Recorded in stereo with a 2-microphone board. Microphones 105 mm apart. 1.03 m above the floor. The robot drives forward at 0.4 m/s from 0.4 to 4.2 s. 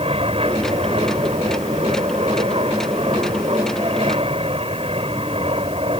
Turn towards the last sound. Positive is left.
turn(degrees=-65)  # may be behind; listen again after turning